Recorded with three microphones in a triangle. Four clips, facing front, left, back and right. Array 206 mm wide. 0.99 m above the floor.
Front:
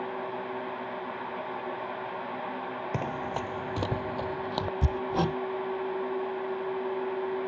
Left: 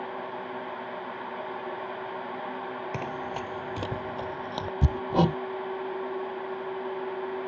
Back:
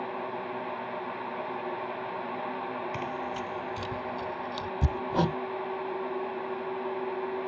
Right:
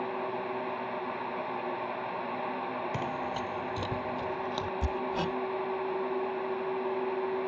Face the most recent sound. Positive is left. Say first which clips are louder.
# left 10 dB, back 3 dB
turn(degrees=90)